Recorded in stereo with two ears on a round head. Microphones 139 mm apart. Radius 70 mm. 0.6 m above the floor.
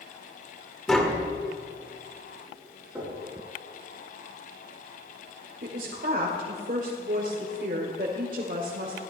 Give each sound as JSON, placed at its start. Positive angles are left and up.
{"t": 0.9, "sound": "tapping", "side_deg": 5, "distance_m": 1.9}
{"t": 3.0, "sound": "knocking", "side_deg": -15, "distance_m": 7.0}
{"t": 5.6, "sound": "a woman speaking", "side_deg": -55, "distance_m": 1.9}